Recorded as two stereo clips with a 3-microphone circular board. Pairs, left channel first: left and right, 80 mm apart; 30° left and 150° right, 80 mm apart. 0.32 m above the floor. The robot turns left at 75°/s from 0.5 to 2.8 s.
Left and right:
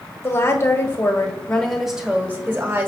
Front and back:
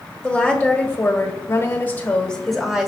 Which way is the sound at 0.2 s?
95° left.